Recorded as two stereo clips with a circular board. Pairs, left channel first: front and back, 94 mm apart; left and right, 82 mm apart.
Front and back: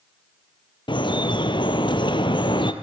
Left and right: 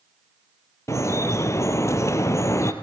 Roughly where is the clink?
I don't hear a clink.